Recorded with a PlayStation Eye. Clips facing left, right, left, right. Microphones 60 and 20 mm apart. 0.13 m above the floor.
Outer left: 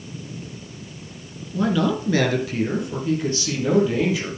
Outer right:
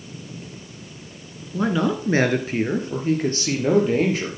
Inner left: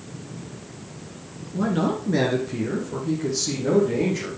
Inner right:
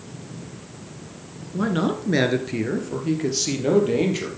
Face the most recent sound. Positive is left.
turn(degrees=-50)  # may be behind; listen again after turning